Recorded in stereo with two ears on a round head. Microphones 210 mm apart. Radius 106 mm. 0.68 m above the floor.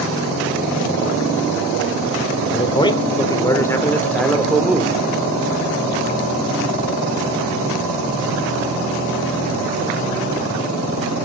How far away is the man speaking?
About 2.5 m.